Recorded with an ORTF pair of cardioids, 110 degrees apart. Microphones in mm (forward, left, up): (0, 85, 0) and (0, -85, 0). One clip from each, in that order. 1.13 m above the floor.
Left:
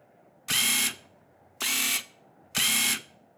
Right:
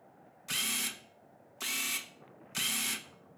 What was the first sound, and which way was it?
A camera shutter, 35° left.